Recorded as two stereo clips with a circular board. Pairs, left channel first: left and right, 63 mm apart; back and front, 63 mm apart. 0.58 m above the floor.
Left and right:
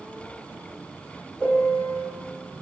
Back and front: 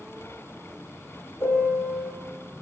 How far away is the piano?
About 2 m.